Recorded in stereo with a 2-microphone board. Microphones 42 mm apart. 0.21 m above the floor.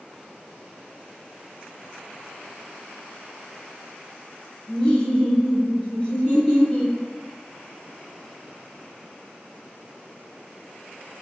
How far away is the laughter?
About 1.2 m.